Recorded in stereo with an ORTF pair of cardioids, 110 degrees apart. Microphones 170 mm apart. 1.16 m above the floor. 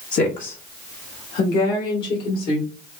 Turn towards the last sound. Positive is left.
turn(degrees=70)